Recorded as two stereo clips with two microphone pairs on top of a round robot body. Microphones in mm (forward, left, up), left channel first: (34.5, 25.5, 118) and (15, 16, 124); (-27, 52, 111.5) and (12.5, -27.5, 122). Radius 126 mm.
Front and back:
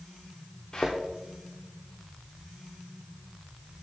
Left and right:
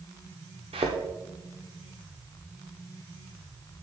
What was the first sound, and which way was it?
A thud, 65° right.